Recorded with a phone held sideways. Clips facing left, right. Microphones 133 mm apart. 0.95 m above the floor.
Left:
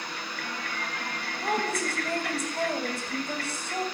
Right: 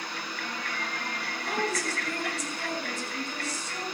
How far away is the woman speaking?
About 6.5 m.